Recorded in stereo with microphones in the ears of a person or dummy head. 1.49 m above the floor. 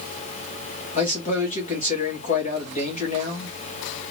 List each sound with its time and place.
0.9 s a man speaking: 45° left (ahead or behind), 2.5 m